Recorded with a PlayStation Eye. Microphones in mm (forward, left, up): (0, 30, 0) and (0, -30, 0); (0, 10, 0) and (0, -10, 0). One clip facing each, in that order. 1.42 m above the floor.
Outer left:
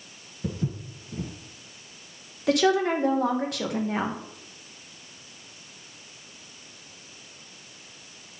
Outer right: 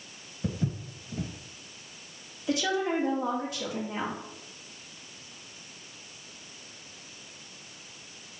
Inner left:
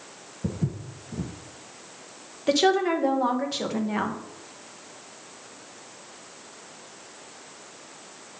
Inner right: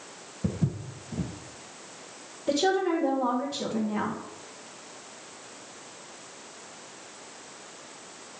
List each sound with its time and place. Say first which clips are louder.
0.4 s footsteps: outer left 1 dB, even; 15° right (ahead or behind), 1.4 m
2.5 s a woman speaking: outer left 6 dB, inner left 3 dB; 70° left (ahead or behind), 1.3 m